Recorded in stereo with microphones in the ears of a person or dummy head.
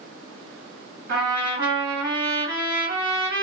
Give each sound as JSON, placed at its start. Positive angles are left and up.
{"t": 1.1, "sound": "a trumpet", "side_deg": -65, "distance_m": 1.9}